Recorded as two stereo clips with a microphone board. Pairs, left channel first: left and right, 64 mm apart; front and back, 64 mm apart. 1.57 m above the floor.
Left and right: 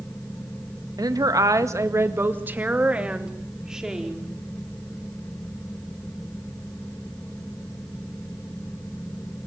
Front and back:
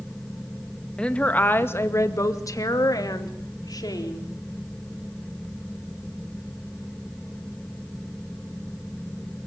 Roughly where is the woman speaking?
Right.